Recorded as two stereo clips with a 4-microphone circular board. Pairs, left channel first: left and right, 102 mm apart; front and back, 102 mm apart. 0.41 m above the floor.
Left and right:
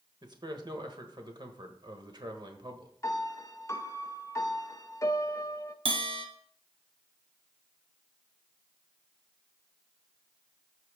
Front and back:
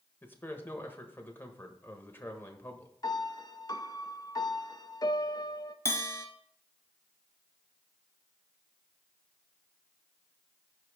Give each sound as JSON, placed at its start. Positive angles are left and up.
{"t": 0.2, "sound": "a man speaking", "azimuth_deg": -65, "distance_m": 1.2}
{"t": 3.0, "sound": "a piano", "azimuth_deg": 40, "distance_m": 0.6}
{"t": 5.8, "sound": "a bell", "azimuth_deg": -65, "distance_m": 1.1}